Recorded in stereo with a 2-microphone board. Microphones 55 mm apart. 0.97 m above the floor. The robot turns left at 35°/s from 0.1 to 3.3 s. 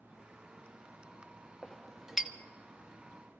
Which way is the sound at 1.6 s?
10° left (ahead or behind).